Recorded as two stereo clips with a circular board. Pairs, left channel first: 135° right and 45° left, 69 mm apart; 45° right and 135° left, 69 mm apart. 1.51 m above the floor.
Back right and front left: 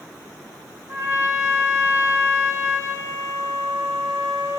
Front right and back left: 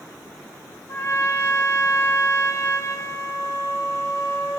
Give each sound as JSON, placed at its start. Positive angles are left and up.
{"t": 0.9, "sound": "a trumpet", "azimuth_deg": 0, "distance_m": 0.7}